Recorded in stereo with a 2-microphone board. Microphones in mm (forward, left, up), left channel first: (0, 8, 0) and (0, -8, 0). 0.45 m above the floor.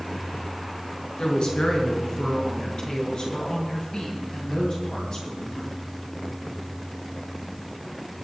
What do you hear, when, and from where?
1.2 s a woman speaking: 70° left (ahead or behind), 6 m; by 5.7 s 60° left (ahead or behind), 12 m